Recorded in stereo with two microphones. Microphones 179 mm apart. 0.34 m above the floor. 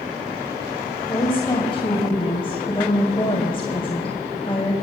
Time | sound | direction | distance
1.1 | a woman speaking | 30° left (ahead or behind) | 2 m